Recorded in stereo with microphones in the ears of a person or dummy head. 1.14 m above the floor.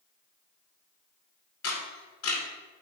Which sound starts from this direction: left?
A camera shutter, at 1.6 s.